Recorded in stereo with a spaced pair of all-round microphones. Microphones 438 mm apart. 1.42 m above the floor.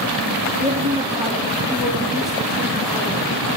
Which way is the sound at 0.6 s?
20° right (ahead or behind).